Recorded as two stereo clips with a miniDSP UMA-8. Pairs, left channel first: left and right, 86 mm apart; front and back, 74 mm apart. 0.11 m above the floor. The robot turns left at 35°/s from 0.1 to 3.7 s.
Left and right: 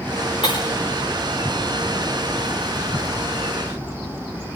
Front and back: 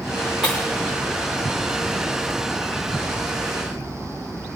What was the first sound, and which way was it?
Breaking glass, 100° left.